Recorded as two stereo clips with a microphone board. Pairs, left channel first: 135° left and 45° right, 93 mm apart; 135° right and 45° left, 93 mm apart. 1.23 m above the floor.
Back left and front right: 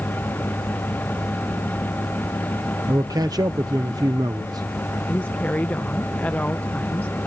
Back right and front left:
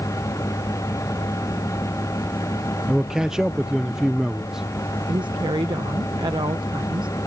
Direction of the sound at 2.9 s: 35° right.